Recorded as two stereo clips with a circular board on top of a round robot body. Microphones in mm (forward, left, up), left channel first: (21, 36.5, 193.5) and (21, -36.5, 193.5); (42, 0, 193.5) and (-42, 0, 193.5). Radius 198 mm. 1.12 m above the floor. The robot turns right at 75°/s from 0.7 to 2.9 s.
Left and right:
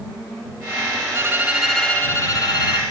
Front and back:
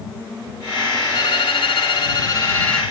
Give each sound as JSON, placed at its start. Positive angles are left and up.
{"t": 1.1, "sound": "a violin", "azimuth_deg": -40}